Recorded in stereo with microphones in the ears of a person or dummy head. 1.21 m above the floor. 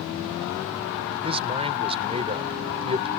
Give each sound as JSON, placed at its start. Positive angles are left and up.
{"t": 1.2, "sound": "a man speaking", "side_deg": -30}